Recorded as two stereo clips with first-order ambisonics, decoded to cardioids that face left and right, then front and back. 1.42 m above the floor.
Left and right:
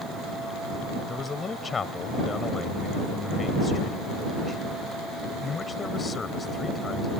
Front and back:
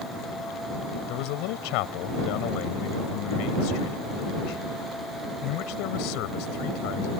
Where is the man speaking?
15° left.